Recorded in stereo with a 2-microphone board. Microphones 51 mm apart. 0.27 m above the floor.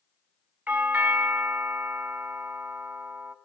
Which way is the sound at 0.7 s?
30° right (ahead or behind).